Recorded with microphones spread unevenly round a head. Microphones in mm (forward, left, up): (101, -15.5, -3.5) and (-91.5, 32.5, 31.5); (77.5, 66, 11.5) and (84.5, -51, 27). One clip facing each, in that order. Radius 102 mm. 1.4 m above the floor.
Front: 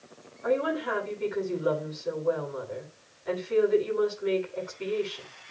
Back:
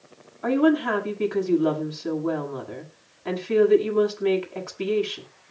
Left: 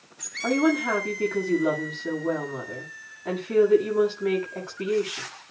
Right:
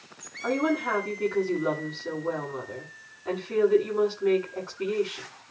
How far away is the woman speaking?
About 8 m.